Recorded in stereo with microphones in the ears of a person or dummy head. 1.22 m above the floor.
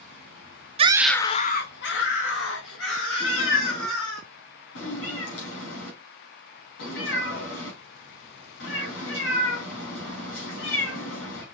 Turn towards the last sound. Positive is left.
turn(degrees=70)  # may be behind; listen again after turning